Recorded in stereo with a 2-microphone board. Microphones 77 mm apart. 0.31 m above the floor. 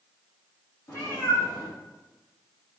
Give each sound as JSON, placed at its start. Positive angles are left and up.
{"t": 0.9, "sound": "a cat meowing", "side_deg": 45, "distance_m": 4.5}